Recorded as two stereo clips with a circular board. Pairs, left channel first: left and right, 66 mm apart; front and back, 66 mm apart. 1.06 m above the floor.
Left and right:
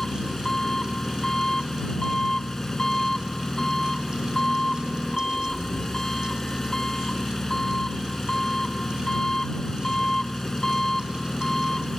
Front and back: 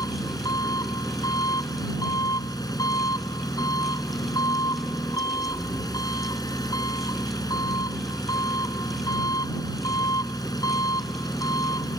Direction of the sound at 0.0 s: 5° left.